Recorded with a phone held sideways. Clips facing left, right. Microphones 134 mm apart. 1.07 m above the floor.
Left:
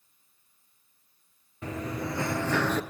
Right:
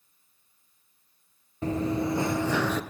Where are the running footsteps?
35° right (ahead or behind), 1.3 m; by 2.8 s 5° right (ahead or behind), 1.1 m.